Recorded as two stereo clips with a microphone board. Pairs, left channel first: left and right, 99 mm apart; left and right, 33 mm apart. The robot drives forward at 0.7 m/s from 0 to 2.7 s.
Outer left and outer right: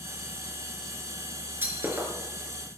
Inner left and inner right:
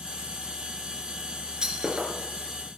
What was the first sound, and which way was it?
Breaking glass, 25° right (ahead or behind).